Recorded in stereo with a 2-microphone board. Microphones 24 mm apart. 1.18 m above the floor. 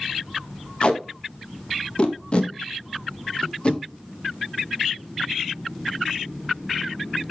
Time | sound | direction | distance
0.8 | tape being pulled | 40° left (ahead or behind) | 1.6 m